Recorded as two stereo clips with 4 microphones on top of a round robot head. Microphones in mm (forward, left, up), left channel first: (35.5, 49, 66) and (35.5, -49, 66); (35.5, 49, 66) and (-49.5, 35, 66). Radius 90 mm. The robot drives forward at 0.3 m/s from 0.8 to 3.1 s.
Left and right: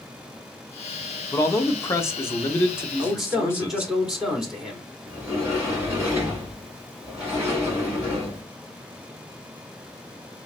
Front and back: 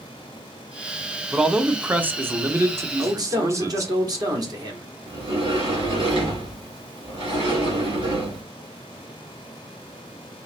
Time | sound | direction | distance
1.3 | a man speaking | 110° left | 0.8 m
3.0 | a man speaking | 175° right | 1.7 m
5.1 | a sliding door | 165° right | 2.5 m